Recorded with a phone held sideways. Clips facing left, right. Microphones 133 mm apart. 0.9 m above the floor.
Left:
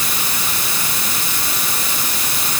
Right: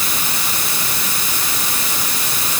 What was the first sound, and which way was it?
Only background noise.